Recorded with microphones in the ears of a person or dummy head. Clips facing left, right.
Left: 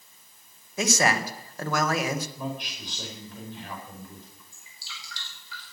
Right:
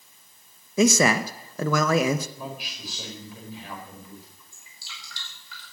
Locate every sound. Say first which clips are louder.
0.8 s a man speaking: right 6 dB; 75° right (ahead or behind), 1.0 m
2.4 s a man speaking: left 3 dB; centre (ahead or behind), 5 m
4.5 s dripping: left 1 dB; 45° right (ahead or behind), 5 m